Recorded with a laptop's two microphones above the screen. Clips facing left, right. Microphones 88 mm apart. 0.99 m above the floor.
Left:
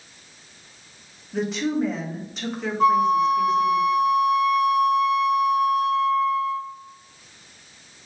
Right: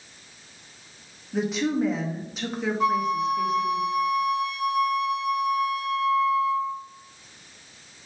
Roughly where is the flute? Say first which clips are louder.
Left 7 dB; left.